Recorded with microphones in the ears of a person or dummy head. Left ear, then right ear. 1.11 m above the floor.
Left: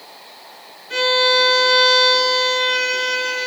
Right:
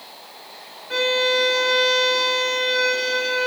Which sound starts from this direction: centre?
A violin, at 0.9 s.